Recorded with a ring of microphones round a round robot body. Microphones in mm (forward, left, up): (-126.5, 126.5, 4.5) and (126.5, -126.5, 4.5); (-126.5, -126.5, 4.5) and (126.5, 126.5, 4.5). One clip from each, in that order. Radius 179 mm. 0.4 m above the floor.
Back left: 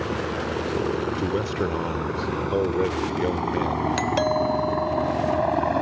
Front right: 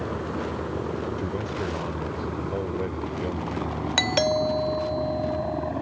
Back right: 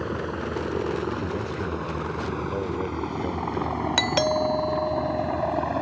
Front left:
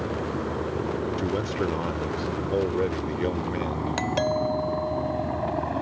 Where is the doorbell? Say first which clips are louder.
Front right 3 dB, back right 3 dB; 95° right.